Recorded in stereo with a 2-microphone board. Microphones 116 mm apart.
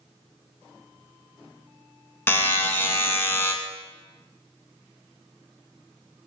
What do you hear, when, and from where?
2.3 s a buzzer: 20° left (ahead or behind), 0.5 m